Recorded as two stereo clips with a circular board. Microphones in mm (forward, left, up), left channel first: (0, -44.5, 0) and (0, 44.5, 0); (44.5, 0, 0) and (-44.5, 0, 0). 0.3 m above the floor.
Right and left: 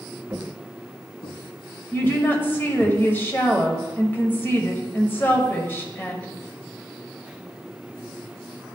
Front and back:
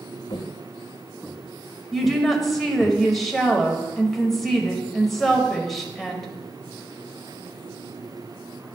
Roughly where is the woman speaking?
Right.